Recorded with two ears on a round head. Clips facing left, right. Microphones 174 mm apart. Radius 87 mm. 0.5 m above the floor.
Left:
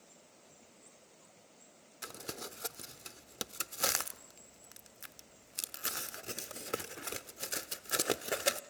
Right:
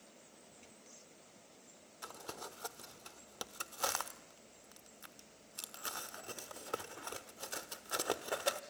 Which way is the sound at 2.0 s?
25° left (ahead or behind).